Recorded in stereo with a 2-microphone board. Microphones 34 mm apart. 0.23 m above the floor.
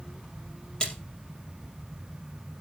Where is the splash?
25° left (ahead or behind), 2.5 m.